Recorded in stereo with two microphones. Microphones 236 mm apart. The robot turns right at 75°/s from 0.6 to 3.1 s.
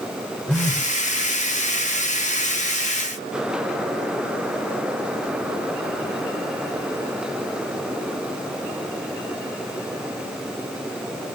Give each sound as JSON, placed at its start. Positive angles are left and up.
{"t": 0.5, "sound": "a phone buzzing", "side_deg": 5, "distance_m": 1.3}